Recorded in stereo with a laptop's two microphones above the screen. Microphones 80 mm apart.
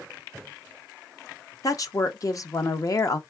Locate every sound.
1.6 s a woman speaking: 50° left (ahead or behind), 0.5 m